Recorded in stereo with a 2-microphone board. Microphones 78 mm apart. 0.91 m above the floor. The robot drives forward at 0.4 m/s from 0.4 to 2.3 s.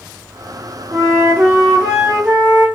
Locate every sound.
0.9 s a flute: 30° right (ahead or behind), 0.6 m; by 2.7 s 20° right (ahead or behind), 0.9 m